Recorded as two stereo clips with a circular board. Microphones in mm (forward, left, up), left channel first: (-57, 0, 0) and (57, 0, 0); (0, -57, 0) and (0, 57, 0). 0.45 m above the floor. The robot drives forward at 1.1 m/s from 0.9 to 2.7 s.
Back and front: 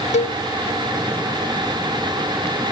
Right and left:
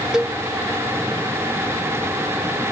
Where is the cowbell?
175° left.